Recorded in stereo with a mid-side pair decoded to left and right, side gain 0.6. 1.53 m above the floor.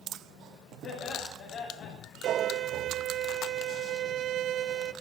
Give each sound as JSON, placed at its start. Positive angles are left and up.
{"t": 0.8, "sound": "laughter", "azimuth_deg": 60, "distance_m": 6.5}
{"t": 2.2, "sound": "a violin", "azimuth_deg": -55, "distance_m": 0.9}